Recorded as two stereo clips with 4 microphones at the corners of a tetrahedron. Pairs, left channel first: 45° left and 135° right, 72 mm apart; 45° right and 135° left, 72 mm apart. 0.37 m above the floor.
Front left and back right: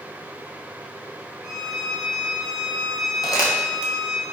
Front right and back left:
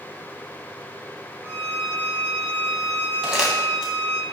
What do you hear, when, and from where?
1.4 s a violin: 155° left, 1.7 m
3.2 s crumpling: 55° left, 2.0 m